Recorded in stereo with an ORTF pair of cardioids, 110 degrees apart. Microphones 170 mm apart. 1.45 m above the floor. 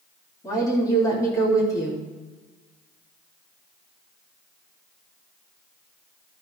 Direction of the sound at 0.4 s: 20° left.